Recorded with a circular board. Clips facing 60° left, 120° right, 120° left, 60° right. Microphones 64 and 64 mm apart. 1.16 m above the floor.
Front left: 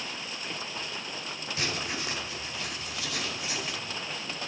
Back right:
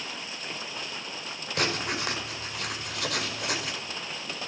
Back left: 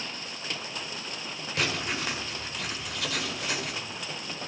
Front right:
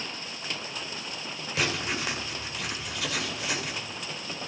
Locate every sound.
1.6 s writing: 150° right, 4.5 m